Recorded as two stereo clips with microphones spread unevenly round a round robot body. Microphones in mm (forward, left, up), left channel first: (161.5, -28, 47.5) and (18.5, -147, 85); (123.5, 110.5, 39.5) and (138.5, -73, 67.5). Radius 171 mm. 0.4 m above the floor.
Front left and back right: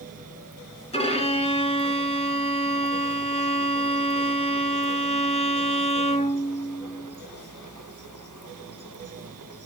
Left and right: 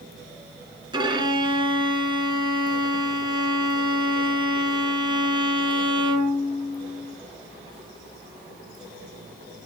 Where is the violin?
20° right, 2.5 m.